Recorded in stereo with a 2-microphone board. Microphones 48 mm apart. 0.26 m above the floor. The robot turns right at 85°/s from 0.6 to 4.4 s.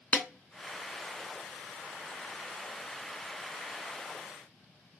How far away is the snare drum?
About 0.6 m.